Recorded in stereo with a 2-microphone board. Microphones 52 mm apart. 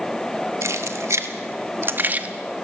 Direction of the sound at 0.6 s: 75° right (ahead or behind).